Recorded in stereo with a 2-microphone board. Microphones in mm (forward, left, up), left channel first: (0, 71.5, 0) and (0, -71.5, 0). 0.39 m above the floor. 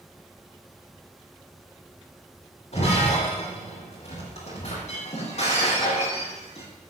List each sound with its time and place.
2.7 s breaking glass: 55° left (ahead or behind), 9 m